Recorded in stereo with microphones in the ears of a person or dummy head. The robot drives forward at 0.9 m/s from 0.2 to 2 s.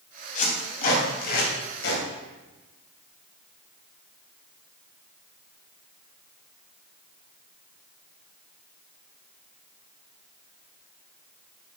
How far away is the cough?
No cough in this recording.